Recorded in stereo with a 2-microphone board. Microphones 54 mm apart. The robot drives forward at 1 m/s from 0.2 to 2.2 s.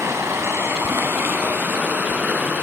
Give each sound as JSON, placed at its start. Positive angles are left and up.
{"t": 0.0, "sound": "running water", "side_deg": -65, "distance_m": 2.5}